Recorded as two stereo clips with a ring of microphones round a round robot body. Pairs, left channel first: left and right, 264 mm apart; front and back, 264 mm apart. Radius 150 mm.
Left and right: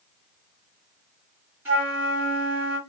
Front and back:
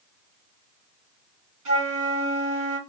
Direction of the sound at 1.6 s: 170° right.